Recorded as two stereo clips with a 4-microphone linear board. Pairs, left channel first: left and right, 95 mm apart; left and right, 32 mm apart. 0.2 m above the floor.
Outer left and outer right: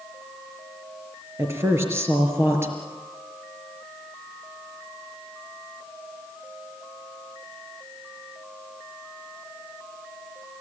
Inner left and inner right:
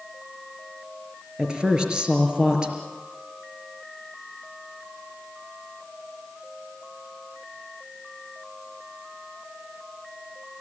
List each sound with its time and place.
1.4 s a woman speaking: 25° right (ahead or behind), 4.5 m